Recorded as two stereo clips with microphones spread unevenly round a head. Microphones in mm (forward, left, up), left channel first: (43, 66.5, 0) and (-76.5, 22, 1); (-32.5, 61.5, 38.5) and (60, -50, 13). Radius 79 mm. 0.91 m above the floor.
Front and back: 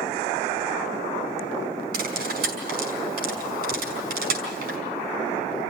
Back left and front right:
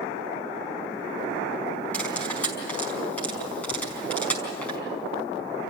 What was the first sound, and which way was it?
Cutlery clinking, 150° right.